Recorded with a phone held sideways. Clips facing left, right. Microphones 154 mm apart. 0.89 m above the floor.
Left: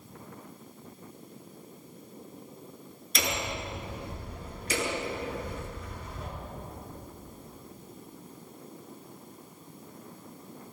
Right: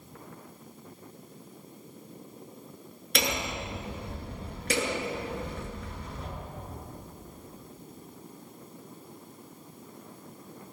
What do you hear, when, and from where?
3.1 s hammering: 60° right (ahead or behind), 9 m